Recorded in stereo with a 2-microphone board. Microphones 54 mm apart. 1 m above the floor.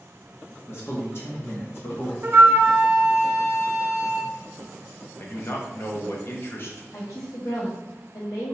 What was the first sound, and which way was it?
A man speaking, 45° left (ahead or behind).